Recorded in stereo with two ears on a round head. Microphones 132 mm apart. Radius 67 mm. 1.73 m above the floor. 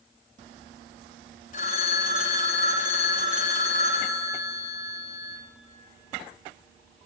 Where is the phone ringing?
55° left (ahead or behind), 1.2 m.